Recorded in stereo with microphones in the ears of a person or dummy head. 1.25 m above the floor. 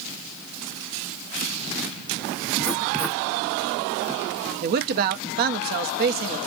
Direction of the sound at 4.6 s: 45° right (ahead or behind).